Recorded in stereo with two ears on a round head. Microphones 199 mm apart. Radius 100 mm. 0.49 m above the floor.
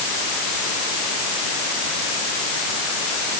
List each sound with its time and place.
Only background noise.